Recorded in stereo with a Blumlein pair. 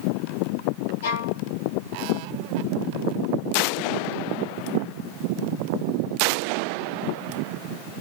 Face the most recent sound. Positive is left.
turn(degrees=65)